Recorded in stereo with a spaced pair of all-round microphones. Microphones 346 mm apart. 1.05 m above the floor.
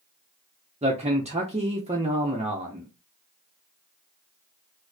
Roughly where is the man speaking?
Centre.